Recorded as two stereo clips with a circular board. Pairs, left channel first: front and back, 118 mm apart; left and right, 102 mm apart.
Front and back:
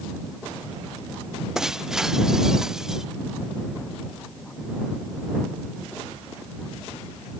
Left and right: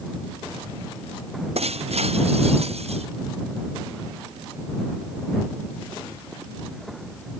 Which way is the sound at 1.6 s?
95° right.